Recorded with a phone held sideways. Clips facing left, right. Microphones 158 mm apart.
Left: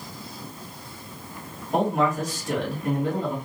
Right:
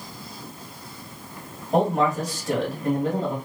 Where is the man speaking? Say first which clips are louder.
Right 2 dB; 40° right (ahead or behind), 2.5 m.